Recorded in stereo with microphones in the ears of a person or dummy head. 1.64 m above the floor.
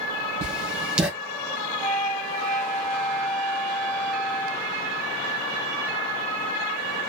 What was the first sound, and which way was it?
Writing, 10° right (ahead or behind).